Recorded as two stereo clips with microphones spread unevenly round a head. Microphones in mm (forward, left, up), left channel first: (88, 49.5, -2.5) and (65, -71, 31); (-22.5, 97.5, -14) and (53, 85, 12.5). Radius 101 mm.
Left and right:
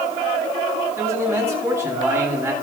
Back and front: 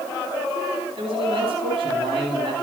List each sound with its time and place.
1.0 s a man speaking: 30° right, 9.5 m